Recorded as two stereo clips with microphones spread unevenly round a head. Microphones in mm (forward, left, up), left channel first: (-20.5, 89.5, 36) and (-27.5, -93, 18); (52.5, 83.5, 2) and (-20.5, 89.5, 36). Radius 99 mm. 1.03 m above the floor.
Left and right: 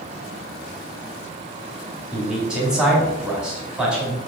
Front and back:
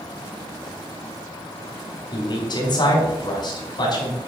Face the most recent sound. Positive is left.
turn(degrees=-5)